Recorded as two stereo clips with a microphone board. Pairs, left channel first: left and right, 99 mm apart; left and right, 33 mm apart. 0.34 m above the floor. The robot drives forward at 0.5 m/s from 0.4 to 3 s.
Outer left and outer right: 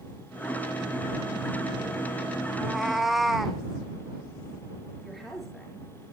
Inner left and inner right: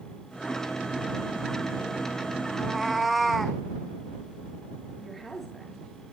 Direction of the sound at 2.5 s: Centre (ahead or behind).